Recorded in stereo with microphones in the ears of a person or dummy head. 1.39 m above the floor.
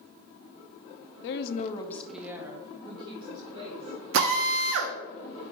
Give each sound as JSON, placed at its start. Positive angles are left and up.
{"t": 1.2, "sound": "a woman speaking", "side_deg": 70, "distance_m": 0.7}
{"t": 4.1, "sound": "a drill", "side_deg": -70, "distance_m": 0.8}